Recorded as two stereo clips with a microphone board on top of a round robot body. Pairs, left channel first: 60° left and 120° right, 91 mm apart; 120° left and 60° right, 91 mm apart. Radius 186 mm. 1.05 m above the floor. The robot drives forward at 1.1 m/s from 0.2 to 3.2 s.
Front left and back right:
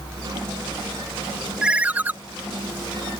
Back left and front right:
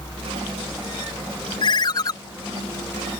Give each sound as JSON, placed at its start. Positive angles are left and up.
{"t": 1.6, "sound": "a ringtone", "azimuth_deg": 160}